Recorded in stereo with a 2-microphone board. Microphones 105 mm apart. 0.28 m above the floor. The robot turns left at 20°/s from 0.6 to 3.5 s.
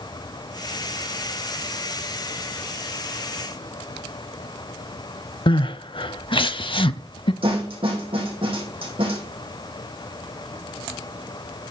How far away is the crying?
About 0.5 m.